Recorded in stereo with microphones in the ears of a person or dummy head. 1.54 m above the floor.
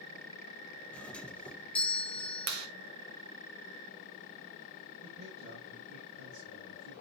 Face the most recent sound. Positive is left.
turn(degrees=-85)